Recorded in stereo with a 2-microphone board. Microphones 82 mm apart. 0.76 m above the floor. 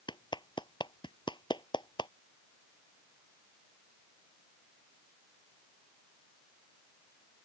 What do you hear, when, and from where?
0.1 s a clap: 70° left (ahead or behind)